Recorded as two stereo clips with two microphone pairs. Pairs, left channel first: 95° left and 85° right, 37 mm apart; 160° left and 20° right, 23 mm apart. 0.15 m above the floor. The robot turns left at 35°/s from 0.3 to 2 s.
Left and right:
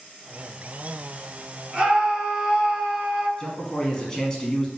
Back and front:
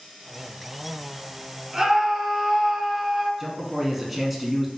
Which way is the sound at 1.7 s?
50° right.